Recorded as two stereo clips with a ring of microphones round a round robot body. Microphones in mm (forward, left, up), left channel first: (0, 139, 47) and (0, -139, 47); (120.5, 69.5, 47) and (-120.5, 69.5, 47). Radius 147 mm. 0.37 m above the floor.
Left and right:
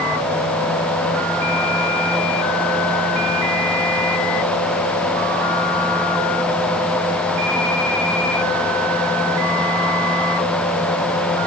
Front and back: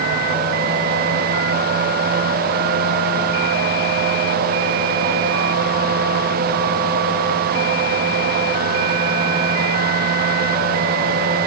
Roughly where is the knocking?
No knocking in this recording.